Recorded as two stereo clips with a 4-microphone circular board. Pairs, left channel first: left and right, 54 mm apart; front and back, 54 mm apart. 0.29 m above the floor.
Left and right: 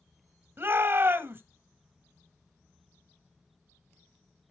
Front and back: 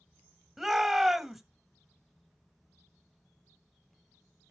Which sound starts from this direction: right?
A shout, at 0.6 s.